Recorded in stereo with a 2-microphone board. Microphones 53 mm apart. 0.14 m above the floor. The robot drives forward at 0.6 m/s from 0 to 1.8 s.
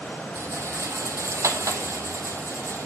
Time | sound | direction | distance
0.3 | a rattle | 60° right (ahead or behind) | 1.3 m